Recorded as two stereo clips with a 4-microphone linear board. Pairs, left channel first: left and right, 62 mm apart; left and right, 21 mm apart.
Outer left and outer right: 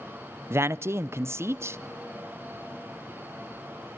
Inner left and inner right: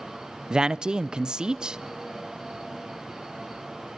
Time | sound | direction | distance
0.5 | a man speaking | 40° right (ahead or behind) | 0.6 m